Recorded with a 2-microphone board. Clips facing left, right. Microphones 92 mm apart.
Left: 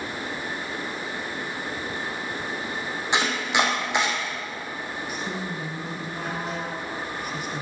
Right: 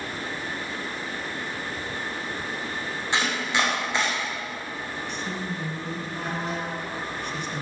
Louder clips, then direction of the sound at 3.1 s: Left 2 dB; 20° left (ahead or behind).